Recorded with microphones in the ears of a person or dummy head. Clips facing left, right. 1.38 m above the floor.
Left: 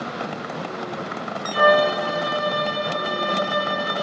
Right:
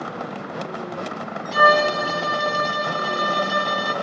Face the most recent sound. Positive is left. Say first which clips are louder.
# left 1 dB
turn(degrees=-60)  # may be behind; listen again after turning